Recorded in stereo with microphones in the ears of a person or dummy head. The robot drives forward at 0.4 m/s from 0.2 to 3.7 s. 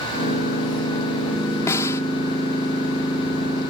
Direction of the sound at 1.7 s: 15° left (ahead or behind).